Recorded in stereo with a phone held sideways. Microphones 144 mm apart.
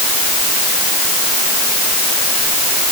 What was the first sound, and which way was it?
Only background noise.